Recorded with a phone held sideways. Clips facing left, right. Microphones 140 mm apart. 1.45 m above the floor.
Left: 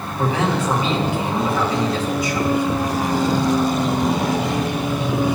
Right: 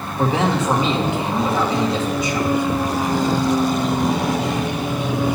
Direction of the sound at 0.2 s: 25° right (ahead or behind).